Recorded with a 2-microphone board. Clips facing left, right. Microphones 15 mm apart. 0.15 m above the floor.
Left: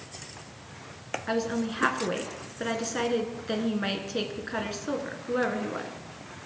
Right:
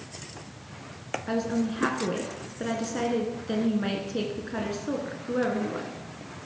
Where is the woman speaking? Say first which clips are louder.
Right 1 dB; 20° left (ahead or behind), 1.5 m.